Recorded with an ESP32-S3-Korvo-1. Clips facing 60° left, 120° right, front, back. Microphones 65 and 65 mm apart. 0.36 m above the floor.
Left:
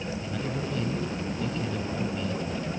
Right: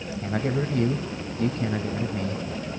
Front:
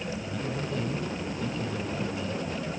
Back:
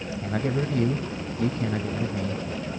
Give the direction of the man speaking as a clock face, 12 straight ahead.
5 o'clock.